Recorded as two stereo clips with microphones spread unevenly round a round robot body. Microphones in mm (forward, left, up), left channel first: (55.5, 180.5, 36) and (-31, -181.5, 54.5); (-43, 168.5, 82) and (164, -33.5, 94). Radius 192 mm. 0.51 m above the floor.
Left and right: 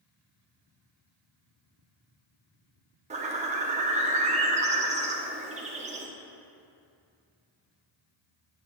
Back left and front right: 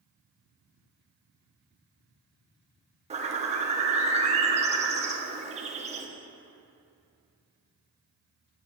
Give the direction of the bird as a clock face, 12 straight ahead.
2 o'clock.